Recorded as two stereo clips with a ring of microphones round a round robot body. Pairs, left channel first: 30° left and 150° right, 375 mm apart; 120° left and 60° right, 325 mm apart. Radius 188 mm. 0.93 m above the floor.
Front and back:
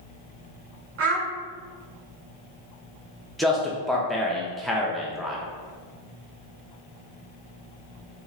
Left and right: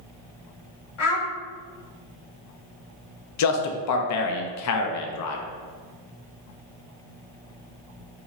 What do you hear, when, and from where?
1.0 s a child speaking: 150° left, 1.3 m
3.4 s a man speaking: 120° left, 0.5 m